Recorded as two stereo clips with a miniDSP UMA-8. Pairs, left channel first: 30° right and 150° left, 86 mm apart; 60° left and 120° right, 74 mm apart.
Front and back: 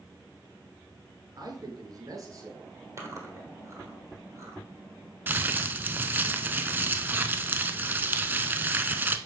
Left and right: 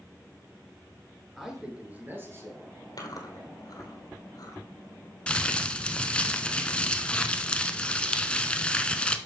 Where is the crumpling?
115° left, 0.5 m.